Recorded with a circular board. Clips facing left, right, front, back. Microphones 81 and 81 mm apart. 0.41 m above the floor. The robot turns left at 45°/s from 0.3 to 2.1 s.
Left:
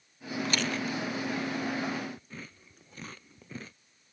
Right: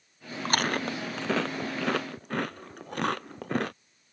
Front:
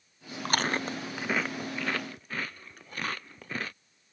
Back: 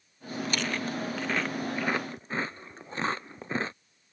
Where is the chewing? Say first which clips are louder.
Right 5 dB, front 3 dB; 40° right; by 3.7 s 115° right.